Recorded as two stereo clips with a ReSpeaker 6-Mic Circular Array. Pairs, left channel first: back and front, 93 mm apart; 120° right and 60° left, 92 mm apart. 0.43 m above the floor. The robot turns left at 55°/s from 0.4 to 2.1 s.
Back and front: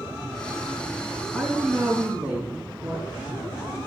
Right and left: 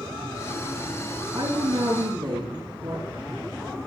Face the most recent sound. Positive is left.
turn(degrees=70)